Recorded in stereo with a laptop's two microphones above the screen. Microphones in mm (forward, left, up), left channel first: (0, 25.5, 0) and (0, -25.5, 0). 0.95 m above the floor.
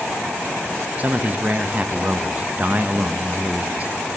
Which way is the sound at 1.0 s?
35° right (ahead or behind).